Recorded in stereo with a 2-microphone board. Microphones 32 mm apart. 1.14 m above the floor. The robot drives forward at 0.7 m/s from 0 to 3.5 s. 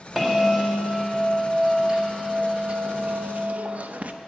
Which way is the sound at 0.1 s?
10° right (ahead or behind).